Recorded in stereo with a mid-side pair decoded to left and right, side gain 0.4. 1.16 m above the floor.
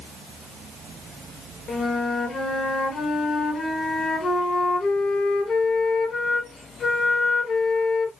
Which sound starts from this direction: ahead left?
A flute, at 1.7 s.